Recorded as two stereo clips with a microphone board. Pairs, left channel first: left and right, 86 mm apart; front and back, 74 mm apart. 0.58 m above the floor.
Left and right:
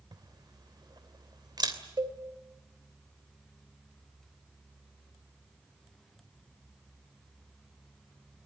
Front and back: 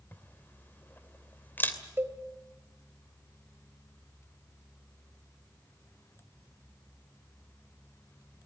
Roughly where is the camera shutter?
Ahead right.